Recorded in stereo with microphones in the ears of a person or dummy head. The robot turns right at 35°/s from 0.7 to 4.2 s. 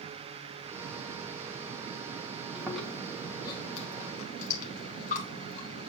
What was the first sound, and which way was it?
Chewing, 10° right.